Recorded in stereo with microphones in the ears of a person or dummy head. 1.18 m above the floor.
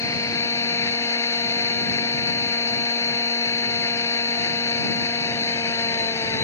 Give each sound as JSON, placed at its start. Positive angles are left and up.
{"t": 0.0, "sound": "a machine running", "side_deg": 20}